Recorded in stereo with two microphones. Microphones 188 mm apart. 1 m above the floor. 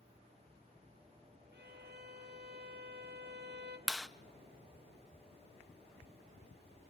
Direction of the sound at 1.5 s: 60° right (ahead or behind).